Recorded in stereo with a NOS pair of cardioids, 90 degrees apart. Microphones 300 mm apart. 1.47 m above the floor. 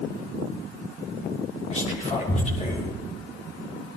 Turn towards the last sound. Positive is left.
turn(degrees=25)